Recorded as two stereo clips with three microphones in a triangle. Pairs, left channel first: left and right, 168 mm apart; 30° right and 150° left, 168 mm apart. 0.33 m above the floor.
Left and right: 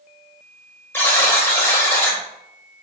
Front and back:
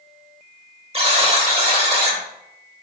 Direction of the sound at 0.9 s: 155° left.